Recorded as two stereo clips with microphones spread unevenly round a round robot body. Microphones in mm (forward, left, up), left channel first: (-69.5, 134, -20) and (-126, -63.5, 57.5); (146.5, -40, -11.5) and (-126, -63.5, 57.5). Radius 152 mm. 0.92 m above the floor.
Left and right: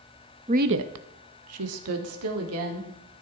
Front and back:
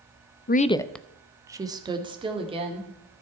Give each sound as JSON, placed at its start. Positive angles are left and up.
{"t": 0.5, "sound": "a woman speaking", "azimuth_deg": -25, "distance_m": 0.5}